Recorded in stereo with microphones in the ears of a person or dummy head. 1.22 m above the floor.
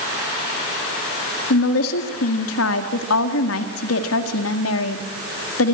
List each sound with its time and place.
1.5 s a woman speaking: 80° left, 1.8 m